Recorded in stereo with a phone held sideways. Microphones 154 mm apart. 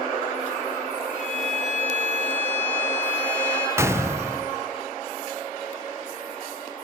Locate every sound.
1.1 s a violin: 50° left (ahead or behind), 6 m
3.8 s a gunshot: 15° right (ahead or behind), 0.6 m